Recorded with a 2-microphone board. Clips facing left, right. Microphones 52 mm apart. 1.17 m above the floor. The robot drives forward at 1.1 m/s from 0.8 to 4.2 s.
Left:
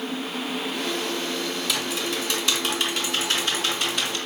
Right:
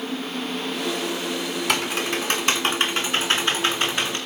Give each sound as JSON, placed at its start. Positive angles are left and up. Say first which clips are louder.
{"t": 1.7, "sound": "typing on a keyboard", "louder": "right 3 dB", "side_deg": -55, "distance_m": 4.5}